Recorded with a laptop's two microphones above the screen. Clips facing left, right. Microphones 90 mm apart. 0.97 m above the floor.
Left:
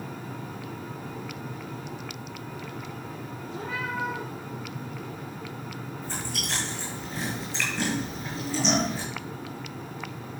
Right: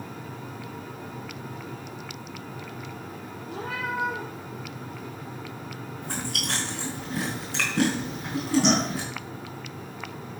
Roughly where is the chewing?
Right.